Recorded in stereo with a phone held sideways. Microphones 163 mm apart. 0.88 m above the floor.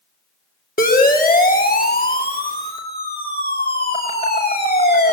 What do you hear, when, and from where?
0.8 s a siren: 60° left (ahead or behind), 3.5 m; by 5.1 s 75° left (ahead or behind), 6.5 m